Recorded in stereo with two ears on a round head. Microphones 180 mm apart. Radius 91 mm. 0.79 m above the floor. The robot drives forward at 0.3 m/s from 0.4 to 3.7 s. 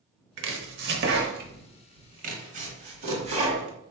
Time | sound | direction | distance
0.4 | chopping | 60° right (ahead or behind) | 0.9 m